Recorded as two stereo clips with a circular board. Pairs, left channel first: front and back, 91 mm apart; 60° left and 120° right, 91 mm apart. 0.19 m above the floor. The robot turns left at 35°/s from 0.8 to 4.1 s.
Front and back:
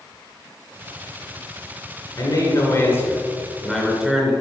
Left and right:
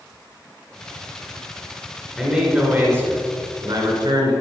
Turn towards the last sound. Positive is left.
turn(degrees=-95)